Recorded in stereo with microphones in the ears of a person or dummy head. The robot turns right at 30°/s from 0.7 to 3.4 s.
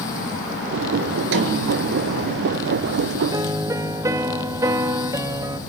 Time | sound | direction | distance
1.3 | a snare drum | 65° right (ahead or behind) | 3 m
3.3 | a piano | 20° right (ahead or behind) | 1.3 m